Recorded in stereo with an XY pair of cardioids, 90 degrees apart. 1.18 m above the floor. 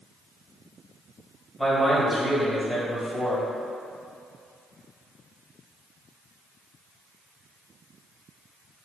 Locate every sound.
1.6 s a man speaking: 5° left, 1.7 m